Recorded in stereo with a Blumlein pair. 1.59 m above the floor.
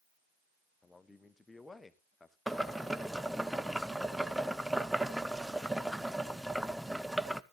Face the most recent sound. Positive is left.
turn(degrees=0)